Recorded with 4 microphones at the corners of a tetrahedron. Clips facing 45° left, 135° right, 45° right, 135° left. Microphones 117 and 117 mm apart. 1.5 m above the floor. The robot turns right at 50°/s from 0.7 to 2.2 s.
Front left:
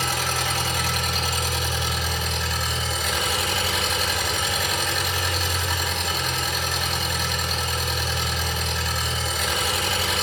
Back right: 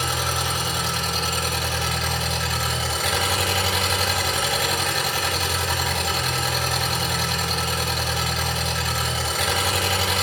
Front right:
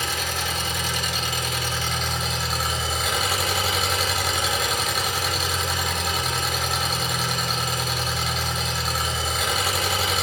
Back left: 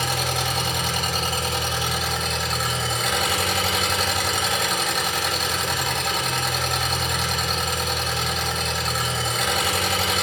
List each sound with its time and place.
0.0 s an engine running: 155° left, 6.5 m; by 10.2 s 130° right, 6.5 m